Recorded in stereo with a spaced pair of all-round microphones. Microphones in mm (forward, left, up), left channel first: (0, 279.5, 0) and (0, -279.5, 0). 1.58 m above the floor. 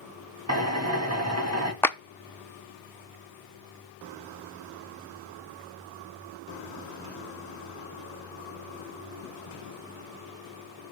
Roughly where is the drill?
Right.